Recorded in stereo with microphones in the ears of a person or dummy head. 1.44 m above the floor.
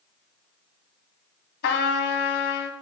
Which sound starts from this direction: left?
A trumpet, at 1.6 s.